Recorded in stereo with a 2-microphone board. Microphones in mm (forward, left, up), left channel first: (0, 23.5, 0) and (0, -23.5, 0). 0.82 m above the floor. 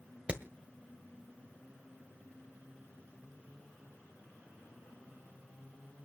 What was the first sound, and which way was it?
Hammering, 25° right (ahead or behind).